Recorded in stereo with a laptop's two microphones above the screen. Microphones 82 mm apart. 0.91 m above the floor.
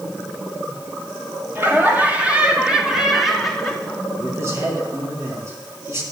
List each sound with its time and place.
1.6 s laughter: 25° right (ahead or behind), 2 m; by 4.0 s 10° left (ahead or behind), 2.5 m
4.2 s a man speaking: 40° right (ahead or behind), 3 m